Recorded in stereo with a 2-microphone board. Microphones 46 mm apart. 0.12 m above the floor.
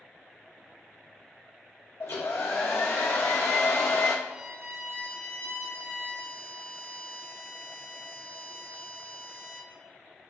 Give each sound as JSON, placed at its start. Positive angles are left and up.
{"t": 2.0, "sound": "a hair dryer", "side_deg": 80, "distance_m": 1.6}
{"t": 4.2, "sound": "a violin", "side_deg": -70, "distance_m": 3.0}